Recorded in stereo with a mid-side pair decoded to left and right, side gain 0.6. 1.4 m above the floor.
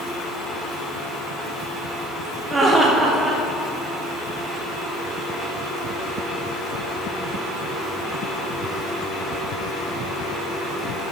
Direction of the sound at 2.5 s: 25° right.